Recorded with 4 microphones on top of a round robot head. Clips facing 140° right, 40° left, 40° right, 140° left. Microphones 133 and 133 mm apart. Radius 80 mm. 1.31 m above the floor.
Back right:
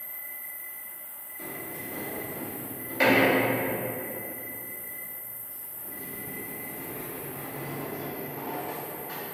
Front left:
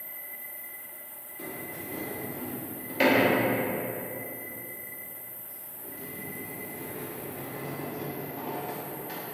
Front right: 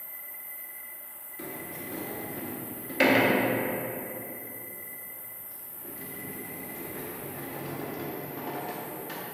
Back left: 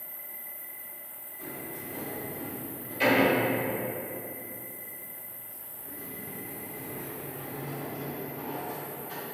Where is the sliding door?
30° right, 0.7 m.